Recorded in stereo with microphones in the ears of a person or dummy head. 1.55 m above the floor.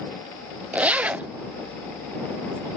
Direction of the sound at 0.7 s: 10° right (ahead or behind).